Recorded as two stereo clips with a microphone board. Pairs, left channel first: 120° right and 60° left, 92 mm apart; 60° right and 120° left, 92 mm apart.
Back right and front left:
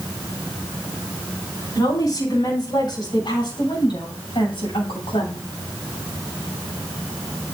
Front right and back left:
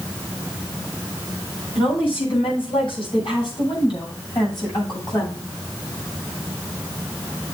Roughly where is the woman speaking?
Right.